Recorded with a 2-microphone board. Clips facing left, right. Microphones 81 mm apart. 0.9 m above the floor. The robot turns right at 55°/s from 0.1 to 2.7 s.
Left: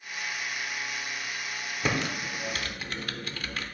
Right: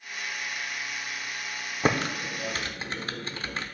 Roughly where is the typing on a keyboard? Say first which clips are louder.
Right 4 dB; right.